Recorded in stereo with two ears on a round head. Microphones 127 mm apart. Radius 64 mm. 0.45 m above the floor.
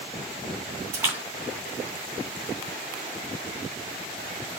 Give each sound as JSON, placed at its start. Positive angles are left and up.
{"t": 0.9, "sound": "a splash", "side_deg": -20, "distance_m": 3.0}